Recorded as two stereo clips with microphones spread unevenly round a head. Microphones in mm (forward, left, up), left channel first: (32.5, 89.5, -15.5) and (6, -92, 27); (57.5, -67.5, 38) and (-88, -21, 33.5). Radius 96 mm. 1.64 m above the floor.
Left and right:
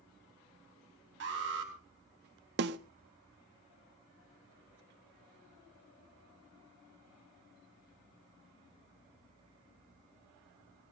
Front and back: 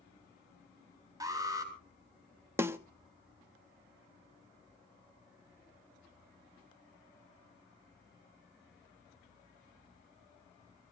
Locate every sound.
1.2 s an alarm: 130° right, 4.5 m
2.6 s a snare drum: 125° right, 1.0 m